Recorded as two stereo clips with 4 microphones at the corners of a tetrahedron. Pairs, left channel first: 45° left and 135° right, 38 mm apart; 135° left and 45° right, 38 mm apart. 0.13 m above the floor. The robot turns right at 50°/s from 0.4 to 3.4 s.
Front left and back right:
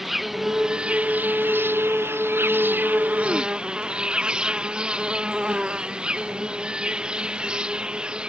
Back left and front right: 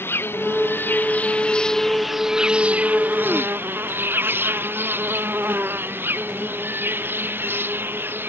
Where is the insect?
140° left; by 8.3 s 70° right.